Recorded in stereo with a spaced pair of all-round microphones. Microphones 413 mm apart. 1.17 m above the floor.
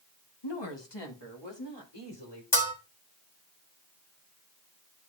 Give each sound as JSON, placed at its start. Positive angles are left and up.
{"t": 0.4, "sound": "a woman speaking", "side_deg": 90, "distance_m": 1.4}
{"t": 2.5, "sound": "a bell", "side_deg": 55, "distance_m": 1.7}